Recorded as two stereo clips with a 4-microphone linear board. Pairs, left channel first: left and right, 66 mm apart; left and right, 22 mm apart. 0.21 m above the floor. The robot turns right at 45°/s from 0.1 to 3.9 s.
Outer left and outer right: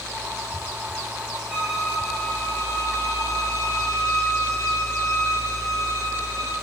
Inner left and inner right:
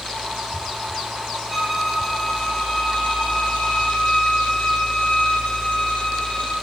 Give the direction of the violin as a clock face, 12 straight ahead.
1 o'clock.